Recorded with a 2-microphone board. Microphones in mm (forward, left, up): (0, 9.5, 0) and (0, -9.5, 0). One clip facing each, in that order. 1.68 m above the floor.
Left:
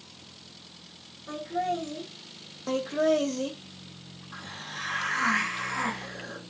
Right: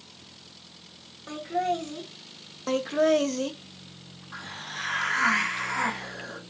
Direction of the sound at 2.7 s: 20° right (ahead or behind).